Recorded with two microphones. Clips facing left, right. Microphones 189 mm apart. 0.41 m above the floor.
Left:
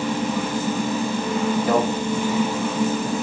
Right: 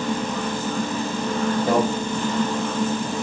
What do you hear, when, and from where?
1.7 s a microwave: 30° right (ahead or behind), 1.8 m